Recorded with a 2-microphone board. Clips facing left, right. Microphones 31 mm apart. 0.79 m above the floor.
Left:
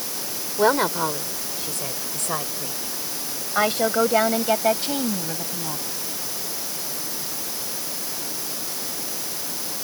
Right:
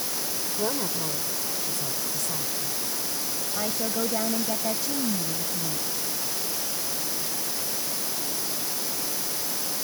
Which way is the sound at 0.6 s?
65° left (ahead or behind).